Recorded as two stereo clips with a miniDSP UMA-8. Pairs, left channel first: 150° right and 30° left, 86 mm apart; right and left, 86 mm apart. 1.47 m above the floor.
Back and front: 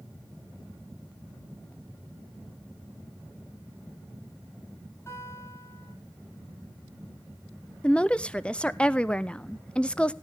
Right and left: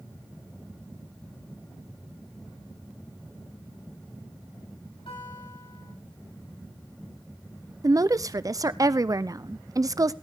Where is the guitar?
95° right, 7 m.